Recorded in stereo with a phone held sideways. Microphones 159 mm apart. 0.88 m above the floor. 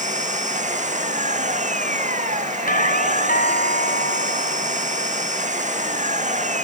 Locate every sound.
0.0 s an engine running: 45° right (ahead or behind)
2.7 s a doorbell: 60° left (ahead or behind)